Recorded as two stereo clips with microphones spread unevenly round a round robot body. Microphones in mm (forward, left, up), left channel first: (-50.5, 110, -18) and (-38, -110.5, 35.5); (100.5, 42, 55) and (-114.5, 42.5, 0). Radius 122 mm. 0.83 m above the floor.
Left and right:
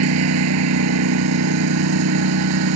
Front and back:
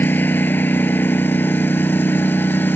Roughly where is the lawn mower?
Right.